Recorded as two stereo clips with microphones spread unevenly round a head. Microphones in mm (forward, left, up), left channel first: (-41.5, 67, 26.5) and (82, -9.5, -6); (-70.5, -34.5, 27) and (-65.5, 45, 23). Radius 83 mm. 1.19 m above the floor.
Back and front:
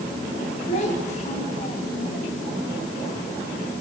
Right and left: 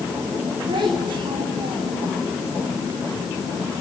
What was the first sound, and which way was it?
A child speaking, 110° left.